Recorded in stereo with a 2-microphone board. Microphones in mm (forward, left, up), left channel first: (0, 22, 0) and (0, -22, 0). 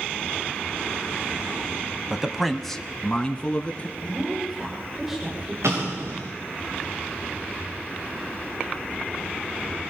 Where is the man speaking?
15° right (ahead or behind), 1.0 m; by 3.9 s 25° left (ahead or behind), 2.5 m.